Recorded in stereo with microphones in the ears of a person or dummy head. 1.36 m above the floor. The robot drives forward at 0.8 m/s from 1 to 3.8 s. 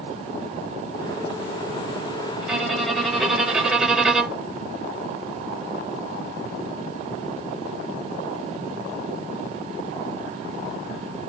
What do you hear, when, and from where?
2.4 s a violin: centre (ahead or behind), 2 m